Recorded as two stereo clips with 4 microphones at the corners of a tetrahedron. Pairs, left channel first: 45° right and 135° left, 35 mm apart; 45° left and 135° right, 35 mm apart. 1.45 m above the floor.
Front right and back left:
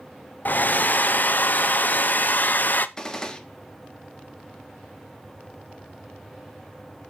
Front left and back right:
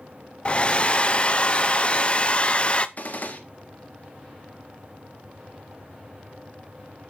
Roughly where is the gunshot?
Ahead.